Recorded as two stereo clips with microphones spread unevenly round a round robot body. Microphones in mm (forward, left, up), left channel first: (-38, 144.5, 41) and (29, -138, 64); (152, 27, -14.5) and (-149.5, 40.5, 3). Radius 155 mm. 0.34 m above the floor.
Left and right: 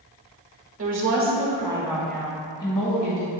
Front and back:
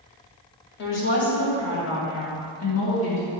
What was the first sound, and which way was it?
A woman speaking, 45° right.